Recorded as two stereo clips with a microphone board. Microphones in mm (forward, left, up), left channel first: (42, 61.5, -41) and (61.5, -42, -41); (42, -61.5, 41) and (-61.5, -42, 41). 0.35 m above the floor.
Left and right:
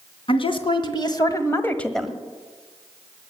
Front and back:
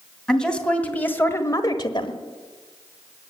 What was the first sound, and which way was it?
A woman speaking, 75° left.